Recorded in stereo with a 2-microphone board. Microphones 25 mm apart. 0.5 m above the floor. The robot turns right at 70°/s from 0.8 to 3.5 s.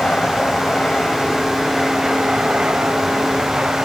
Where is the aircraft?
115° left; by 3.9 s 55° right.